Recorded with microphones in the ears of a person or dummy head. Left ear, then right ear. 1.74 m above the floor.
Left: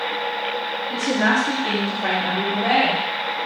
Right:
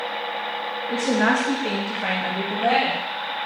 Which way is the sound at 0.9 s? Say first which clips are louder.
Even; 40° right (ahead or behind).